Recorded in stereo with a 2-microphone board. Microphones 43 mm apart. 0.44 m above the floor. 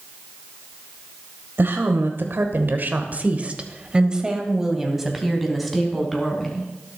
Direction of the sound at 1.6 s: 60° right (ahead or behind).